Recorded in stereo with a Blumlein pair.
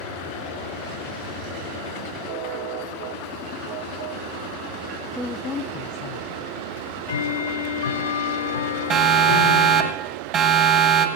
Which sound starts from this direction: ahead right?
A siren, at 8.9 s.